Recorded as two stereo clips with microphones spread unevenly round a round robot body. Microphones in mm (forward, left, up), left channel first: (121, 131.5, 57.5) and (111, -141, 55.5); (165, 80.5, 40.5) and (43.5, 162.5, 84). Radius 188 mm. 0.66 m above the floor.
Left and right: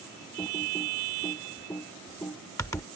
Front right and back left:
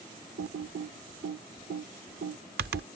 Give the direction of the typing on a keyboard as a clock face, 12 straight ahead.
6 o'clock.